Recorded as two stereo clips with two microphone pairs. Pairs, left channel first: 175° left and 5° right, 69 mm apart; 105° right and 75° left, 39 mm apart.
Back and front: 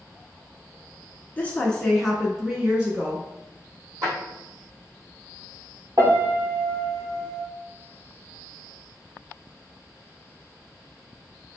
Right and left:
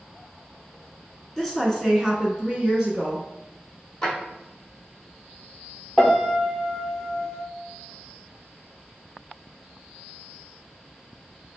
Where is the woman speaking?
Straight behind, 1.1 m; by 3.2 s 20° left, 1.2 m.